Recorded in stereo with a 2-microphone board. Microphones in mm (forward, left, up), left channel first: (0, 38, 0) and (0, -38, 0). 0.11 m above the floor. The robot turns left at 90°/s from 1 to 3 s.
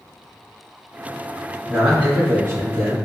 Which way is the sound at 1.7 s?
20° right.